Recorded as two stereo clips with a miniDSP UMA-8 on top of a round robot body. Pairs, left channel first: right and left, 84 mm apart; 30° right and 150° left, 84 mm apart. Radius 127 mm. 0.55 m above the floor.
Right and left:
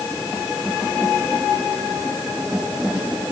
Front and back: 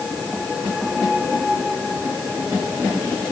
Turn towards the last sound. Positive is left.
No sound to turn to.